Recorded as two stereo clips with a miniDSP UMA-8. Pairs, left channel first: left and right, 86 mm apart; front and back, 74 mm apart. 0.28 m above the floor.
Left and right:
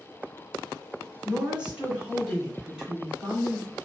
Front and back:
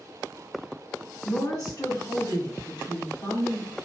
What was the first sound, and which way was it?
A woman speaking, 15° right.